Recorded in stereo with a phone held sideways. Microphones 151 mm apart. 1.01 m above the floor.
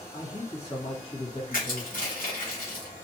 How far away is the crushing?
About 1.2 m.